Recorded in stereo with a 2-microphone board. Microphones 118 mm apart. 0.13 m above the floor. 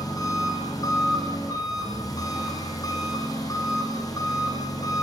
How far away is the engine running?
About 7 m.